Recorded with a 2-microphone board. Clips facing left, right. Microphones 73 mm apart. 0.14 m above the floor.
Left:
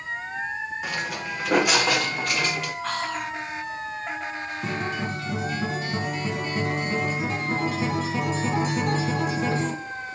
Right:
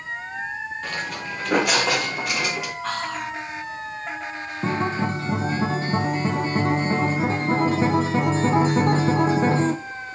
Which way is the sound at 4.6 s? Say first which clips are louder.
Right 7 dB; 35° right (ahead or behind).